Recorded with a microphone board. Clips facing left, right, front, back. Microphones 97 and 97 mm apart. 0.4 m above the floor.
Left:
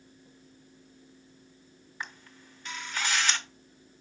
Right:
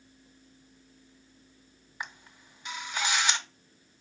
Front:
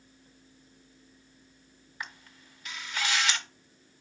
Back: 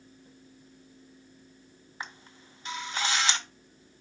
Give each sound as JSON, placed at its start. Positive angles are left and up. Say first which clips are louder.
{"t": 2.0, "sound": "a camera shutter", "louder": "right 1 dB, back 1 dB", "azimuth_deg": -150, "distance_m": 0.7}